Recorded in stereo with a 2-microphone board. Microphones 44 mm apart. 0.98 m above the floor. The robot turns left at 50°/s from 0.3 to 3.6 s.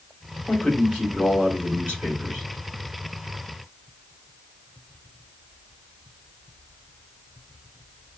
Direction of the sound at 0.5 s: 35° left.